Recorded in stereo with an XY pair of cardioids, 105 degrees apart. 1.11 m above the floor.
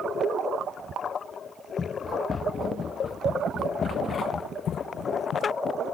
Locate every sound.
1.8 s running footsteps: 35° left; by 5.5 s 70° left